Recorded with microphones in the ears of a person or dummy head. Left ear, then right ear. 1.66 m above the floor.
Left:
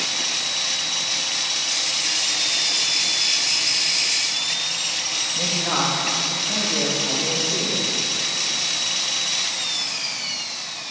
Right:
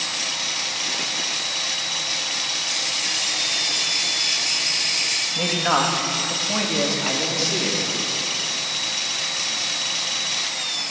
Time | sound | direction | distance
5.3 | a man speaking | 45° right (ahead or behind) | 2 m